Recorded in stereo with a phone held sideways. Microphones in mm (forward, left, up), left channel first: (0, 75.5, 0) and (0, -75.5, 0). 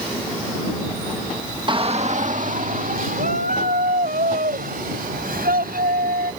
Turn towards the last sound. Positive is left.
turn(degrees=-75)  # may be behind; listen again after turning